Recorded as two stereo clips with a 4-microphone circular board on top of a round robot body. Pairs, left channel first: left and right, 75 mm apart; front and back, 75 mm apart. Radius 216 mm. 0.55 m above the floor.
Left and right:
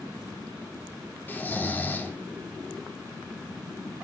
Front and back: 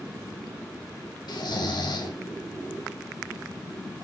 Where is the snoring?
25° left, 3 m.